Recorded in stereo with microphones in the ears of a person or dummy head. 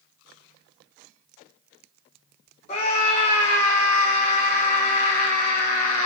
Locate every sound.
2.7 s a scream: 35° left (ahead or behind), 3 m